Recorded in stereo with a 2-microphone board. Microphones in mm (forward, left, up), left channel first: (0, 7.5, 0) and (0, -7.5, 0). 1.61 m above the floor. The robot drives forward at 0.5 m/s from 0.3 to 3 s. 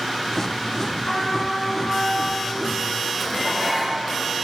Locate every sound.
1.1 s a trumpet: 20° left (ahead or behind), 6 m
3.2 s dishes clattering: 10° right (ahead or behind), 5 m